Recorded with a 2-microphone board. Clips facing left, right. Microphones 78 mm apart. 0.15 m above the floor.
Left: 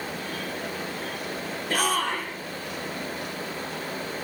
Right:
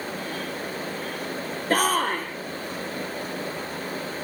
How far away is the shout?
About 3 m.